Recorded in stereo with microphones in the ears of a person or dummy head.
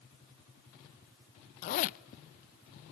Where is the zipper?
65° left (ahead or behind), 0.7 m.